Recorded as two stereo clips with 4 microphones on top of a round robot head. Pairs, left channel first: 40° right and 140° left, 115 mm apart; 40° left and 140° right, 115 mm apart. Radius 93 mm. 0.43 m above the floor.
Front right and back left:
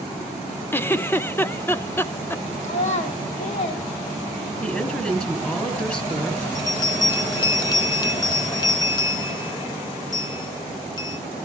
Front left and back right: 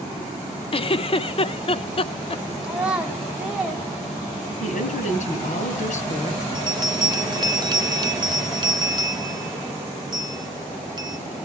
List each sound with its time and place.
0.7 s a giggle: 30° left, 0.9 m
2.6 s a child speaking: 60° right, 3 m
4.6 s a woman speaking: 40° left, 3.5 m
6.5 s a bell: 90° right, 2 m